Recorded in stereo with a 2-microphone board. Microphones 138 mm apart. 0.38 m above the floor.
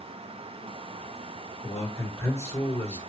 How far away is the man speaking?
About 1.9 m.